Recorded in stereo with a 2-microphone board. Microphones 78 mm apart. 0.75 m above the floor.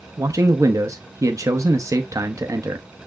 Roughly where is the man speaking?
Right.